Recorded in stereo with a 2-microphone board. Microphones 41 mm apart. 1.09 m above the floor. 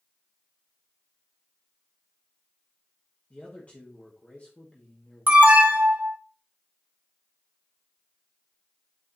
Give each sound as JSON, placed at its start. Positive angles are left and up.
{"t": 3.3, "sound": "a man speaking", "side_deg": 35, "distance_m": 1.6}
{"t": 5.3, "sound": "an alarm", "side_deg": -40, "distance_m": 1.9}